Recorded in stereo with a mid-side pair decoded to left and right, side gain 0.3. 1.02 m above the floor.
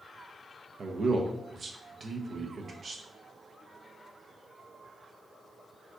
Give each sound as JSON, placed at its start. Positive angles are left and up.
{"t": 0.8, "sound": "a man speaking", "azimuth_deg": -60, "distance_m": 0.5}